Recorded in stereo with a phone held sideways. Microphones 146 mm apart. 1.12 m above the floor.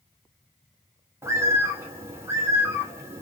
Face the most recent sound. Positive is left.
turn(degrees=-15)  # may be behind; listen again after turning